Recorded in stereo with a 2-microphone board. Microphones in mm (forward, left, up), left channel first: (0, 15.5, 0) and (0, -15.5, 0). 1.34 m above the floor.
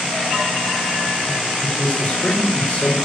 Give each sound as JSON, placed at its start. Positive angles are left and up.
{"t": 1.6, "sound": "a man speaking", "side_deg": 40, "distance_m": 3.5}